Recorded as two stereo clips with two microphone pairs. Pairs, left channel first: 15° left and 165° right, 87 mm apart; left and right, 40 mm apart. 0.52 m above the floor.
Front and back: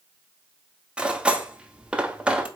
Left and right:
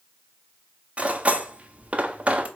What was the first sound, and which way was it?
Cutlery clinking, 85° right.